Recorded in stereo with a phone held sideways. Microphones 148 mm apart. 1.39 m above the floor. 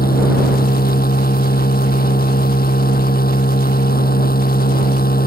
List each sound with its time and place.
0.0 s a machine running: 90° left